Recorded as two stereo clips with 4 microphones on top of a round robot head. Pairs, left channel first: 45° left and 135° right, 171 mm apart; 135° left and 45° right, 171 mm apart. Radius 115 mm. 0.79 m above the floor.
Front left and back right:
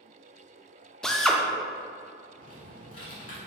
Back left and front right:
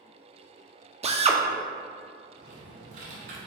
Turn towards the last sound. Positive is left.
turn(degrees=-15)